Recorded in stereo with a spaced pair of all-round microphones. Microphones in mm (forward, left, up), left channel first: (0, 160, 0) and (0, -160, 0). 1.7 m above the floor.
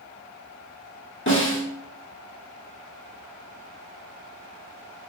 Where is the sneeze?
No sneeze in this recording.